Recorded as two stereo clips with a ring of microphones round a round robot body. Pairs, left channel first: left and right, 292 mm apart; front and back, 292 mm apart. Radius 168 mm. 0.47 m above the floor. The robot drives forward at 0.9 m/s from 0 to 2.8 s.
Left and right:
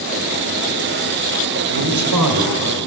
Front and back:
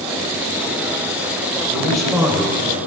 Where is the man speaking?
80° right, 2 m; by 2.8 s 110° right, 2 m.